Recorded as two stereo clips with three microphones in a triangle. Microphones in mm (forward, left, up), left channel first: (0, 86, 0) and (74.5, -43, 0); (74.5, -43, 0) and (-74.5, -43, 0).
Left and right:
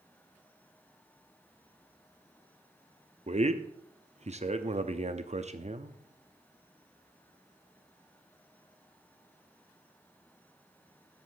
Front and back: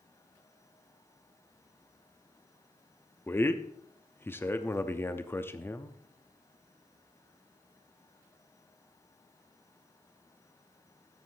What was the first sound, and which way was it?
A man speaking, 70° right.